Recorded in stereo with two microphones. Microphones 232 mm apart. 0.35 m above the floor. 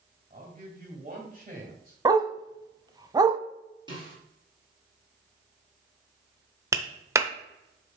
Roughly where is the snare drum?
Centre.